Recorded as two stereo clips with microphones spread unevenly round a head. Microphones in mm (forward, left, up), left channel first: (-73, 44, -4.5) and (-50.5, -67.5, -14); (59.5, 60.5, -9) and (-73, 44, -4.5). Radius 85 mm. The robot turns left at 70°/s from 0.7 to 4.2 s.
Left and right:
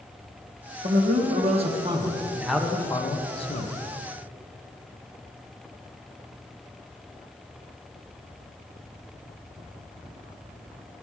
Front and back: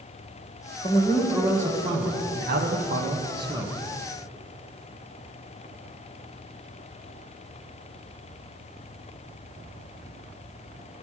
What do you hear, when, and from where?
0.8 s a man speaking: 45° right, 1.3 m; by 3.7 s 110° left, 1.3 m